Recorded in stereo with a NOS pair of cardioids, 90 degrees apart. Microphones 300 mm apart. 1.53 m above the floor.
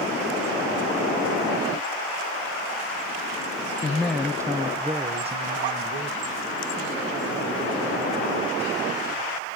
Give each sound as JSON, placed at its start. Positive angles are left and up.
{"t": 3.8, "sound": "a man speaking", "azimuth_deg": 15, "distance_m": 0.6}